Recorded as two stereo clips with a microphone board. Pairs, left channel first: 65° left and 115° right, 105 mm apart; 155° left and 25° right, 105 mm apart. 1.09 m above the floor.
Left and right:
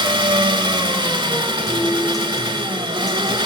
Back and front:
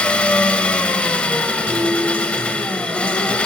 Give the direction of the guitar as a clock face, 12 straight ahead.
12 o'clock.